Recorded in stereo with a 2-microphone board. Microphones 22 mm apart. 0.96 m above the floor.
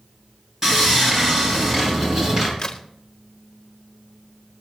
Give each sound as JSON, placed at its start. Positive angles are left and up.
{"t": 0.6, "sound": "sawing", "side_deg": -20, "distance_m": 5.0}
{"t": 2.6, "sound": "a crack", "side_deg": 45, "distance_m": 1.1}